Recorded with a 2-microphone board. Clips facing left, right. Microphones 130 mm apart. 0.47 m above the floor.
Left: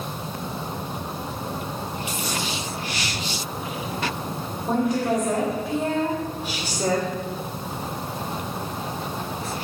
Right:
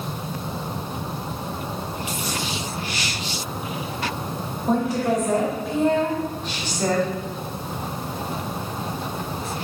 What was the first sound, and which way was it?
A woman speaking, 5° right (ahead or behind).